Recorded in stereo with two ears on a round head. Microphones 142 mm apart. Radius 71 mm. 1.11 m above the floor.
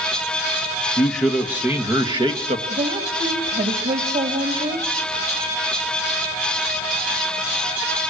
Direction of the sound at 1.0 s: 10° left (ahead or behind).